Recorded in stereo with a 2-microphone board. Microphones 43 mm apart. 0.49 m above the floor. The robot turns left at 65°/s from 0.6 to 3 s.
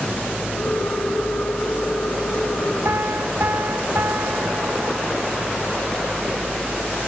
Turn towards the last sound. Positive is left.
turn(degrees=-55)  # may be behind; listen again after turning